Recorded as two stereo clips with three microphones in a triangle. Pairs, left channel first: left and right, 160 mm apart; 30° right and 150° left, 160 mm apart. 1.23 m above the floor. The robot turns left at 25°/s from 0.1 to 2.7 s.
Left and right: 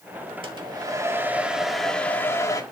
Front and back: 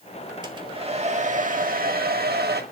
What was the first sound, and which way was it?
A hair dryer, 145° right.